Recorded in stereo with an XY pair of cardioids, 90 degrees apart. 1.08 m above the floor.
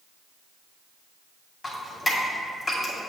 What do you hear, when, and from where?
1.6 s dripping: 35° left, 2.5 m